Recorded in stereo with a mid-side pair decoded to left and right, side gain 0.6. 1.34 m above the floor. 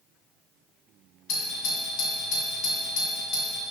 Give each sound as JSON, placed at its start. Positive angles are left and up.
{"t": 1.3, "sound": "a doorbell", "azimuth_deg": 65, "distance_m": 2.0}